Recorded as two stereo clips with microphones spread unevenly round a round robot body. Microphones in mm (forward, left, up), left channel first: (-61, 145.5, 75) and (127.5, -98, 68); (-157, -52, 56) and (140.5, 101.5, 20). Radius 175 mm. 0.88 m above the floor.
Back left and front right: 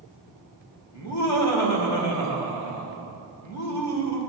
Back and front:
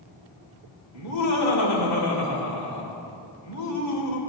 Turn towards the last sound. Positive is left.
turn(degrees=165)